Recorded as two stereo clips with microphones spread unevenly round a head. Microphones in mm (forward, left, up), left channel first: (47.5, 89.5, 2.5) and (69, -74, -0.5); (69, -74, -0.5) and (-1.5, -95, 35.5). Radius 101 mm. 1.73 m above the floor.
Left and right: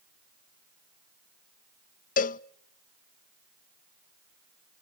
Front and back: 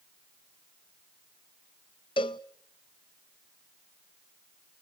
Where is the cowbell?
80° left, 0.5 m.